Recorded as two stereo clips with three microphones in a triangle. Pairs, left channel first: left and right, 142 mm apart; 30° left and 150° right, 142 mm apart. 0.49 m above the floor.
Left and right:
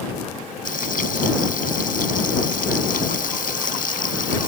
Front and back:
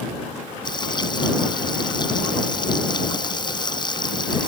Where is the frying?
85° left.